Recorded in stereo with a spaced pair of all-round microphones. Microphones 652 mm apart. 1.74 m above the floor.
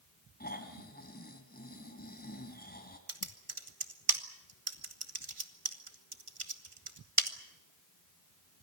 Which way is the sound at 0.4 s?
15° left (ahead or behind).